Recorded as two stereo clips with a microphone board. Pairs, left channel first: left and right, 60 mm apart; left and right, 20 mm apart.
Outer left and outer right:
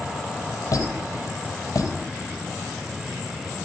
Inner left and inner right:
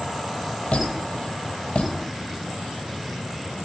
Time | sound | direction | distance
0.7 | a squeak | 60° left (ahead or behind) | 3.5 m